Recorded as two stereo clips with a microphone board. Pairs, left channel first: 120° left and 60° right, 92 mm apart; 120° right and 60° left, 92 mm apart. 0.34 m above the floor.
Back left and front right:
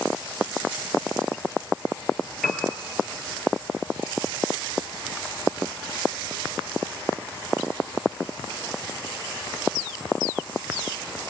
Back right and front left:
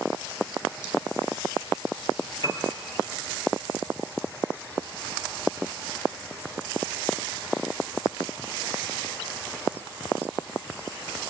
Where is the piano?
155° right, 3 m.